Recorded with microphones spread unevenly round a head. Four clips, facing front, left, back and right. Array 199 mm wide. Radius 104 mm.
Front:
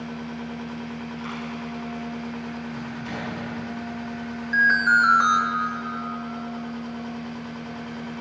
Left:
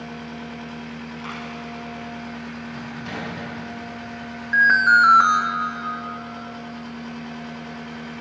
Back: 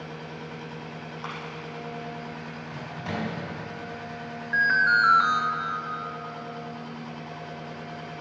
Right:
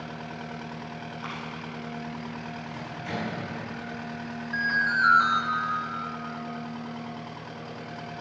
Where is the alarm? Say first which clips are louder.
Left 11 dB, front 3 dB; 85° left, 1.9 m.